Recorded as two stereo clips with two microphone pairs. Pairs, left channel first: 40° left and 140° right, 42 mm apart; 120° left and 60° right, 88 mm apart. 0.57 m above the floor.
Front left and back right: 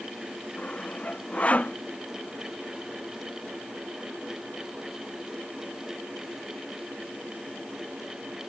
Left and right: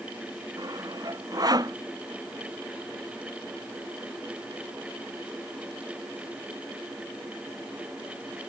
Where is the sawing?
15° right.